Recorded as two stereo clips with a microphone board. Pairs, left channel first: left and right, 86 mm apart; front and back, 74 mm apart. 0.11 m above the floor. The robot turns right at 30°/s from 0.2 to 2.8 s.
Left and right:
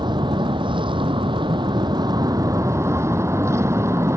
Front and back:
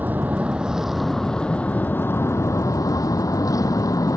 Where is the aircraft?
115° right; by 4.2 s 35° right.